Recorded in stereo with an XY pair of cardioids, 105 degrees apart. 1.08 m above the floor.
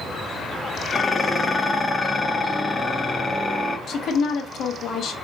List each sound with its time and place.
0.9 s dishes clattering: 25° left, 0.6 m
3.9 s a woman speaking: 65° left, 0.8 m